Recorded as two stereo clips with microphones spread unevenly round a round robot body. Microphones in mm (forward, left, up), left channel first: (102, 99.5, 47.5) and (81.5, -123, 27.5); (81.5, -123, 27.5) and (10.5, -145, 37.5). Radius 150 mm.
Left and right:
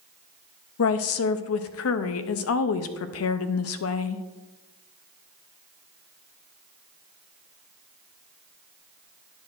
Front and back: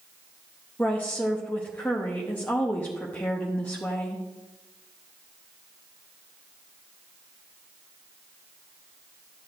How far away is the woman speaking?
About 0.5 m.